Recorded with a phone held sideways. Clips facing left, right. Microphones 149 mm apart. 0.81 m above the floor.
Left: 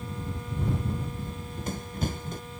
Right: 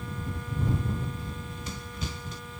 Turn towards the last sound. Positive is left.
turn(degrees=60)  # may be behind; listen again after turning